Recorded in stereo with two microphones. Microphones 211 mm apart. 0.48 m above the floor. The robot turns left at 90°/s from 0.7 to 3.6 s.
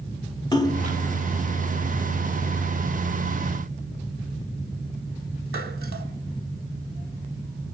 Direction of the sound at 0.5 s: 20° left (ahead or behind).